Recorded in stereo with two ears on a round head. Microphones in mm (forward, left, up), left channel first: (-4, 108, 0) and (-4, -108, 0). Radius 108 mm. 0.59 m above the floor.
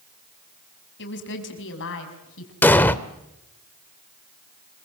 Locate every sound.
1.0 s a woman speaking: 50° left (ahead or behind), 5 m; by 2.5 s 60° left (ahead or behind), 5.5 m
2.6 s an explosion: 10° left (ahead or behind), 0.9 m